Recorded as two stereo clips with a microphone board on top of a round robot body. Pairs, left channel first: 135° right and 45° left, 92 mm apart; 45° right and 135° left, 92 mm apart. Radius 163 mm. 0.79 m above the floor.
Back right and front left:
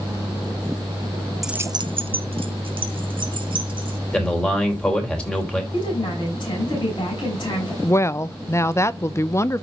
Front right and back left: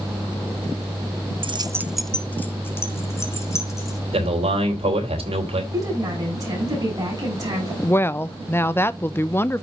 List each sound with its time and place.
1.4 s keys jangling: 135° left, 0.6 m; by 4.0 s 15° left, 3.5 m
4.1 s a man speaking: 145° left, 3.5 m
5.7 s a woman speaking: 175° right, 7.5 m
7.8 s a woman speaking: 95° right, 0.9 m